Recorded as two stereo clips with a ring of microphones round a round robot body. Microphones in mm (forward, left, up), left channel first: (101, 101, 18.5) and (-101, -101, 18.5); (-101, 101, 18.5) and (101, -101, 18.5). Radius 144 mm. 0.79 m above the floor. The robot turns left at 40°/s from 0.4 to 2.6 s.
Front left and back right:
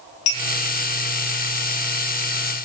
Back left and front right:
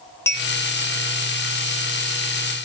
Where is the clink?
55° left, 2.5 m; by 0.5 s 50° left, 2.5 m.